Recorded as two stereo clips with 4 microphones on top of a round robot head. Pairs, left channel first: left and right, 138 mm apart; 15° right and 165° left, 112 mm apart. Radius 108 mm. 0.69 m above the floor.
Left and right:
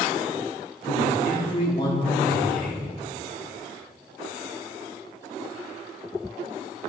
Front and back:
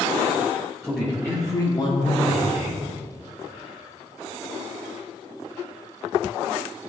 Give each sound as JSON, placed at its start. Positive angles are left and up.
{"t": 0.8, "sound": "a man speaking", "azimuth_deg": 75, "distance_m": 2.0}